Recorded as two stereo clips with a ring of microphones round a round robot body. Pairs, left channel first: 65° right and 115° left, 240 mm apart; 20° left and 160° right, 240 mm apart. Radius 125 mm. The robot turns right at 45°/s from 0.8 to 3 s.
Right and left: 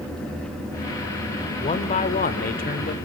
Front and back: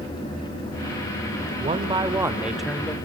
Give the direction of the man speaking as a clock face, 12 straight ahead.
4 o'clock.